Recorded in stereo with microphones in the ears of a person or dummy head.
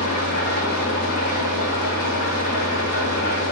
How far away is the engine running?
About 1.6 m.